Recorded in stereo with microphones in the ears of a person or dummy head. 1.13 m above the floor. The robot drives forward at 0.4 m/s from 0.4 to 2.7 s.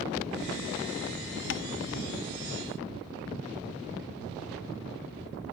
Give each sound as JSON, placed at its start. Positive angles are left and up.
{"t": 1.5, "sound": "tapping", "side_deg": 65}